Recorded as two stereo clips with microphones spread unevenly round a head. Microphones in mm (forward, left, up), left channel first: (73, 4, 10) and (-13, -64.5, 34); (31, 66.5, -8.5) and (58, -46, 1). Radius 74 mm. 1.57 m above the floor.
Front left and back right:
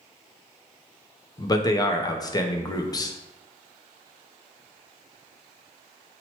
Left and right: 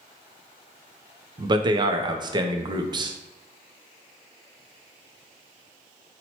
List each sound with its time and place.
1.4 s a man speaking: 25° right, 0.5 m